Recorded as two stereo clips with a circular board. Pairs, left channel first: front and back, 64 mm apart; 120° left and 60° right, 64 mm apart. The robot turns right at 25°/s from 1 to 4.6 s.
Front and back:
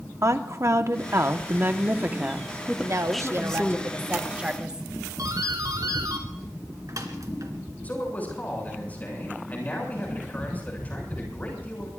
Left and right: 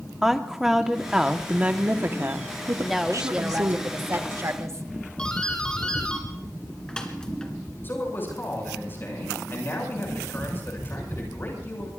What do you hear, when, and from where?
0.2 s a woman speaking: 140° right, 1.1 m; by 3.8 s 75° right, 1.1 m
2.8 s a woman speaking: 150° right, 1.2 m; by 4.9 s 105° right, 1.2 m
5.2 s a doorbell: 160° right, 2.5 m
7.8 s a man speaking: 65° left, 7 m